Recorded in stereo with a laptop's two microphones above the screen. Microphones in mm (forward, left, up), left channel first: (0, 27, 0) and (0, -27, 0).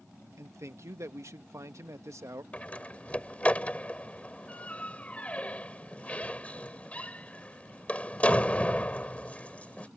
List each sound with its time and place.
0.4 s a man speaking: 60° right (ahead or behind)
2.5 s a door slam: 25° left (ahead or behind)